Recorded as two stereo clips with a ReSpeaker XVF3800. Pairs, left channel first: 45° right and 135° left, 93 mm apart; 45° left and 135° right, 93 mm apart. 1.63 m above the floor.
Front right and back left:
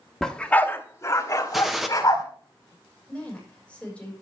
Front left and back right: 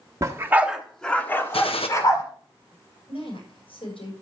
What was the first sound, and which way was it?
A dog barking, 130° right.